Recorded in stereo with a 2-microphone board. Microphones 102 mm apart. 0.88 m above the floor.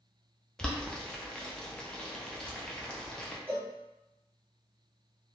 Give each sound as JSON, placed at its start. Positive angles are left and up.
{"t": 0.6, "sound": "boiling", "side_deg": 5, "distance_m": 0.6}
{"t": 3.5, "sound": "a cowbell", "side_deg": -15, "distance_m": 1.9}